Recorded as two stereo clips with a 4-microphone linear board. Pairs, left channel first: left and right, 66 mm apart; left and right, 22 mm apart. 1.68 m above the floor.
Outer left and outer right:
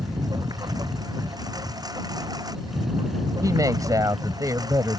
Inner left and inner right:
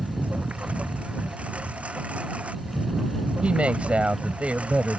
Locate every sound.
0.0 s a lawn mower: 75° right (ahead or behind)
3.4 s a woman speaking: 60° right (ahead or behind)